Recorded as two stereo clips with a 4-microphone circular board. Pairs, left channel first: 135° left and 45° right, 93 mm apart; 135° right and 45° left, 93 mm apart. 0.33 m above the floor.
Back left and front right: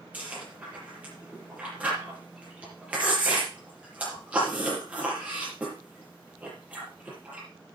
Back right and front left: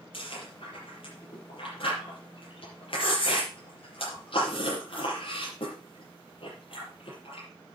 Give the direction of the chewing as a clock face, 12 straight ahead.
4 o'clock.